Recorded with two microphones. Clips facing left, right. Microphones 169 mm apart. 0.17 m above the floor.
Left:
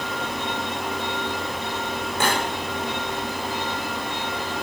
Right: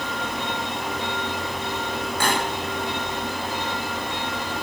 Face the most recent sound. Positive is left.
turn(degrees=25)  # may be behind; listen again after turning